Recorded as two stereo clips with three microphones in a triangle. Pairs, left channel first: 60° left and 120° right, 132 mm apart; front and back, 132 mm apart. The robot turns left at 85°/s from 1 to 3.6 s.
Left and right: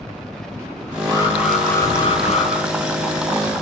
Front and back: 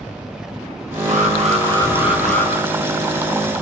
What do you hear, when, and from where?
1.1 s an alarm: 170° right, 6 m; by 2.5 s 65° left, 6 m